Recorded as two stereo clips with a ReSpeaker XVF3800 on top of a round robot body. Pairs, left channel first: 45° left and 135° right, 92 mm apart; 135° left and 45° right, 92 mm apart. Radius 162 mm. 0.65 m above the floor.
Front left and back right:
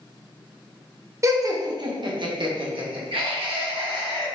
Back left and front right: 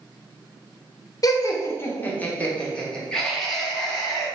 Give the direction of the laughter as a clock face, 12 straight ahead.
6 o'clock.